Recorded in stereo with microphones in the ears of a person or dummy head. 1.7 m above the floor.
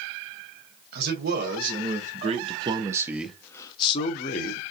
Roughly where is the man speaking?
Right.